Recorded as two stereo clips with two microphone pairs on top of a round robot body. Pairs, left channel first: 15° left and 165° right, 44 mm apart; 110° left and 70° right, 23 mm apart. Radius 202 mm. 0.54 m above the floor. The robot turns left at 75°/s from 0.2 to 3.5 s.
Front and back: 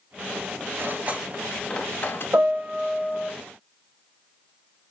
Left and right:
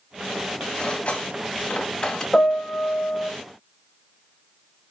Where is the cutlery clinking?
160° left, 1.5 m; by 2.2 s 50° left, 1.5 m.